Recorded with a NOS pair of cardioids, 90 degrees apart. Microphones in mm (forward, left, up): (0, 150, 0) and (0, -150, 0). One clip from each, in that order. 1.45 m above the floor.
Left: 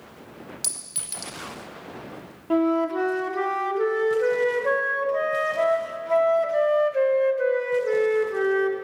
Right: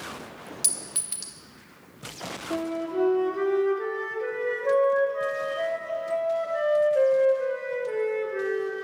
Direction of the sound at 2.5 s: 60° left.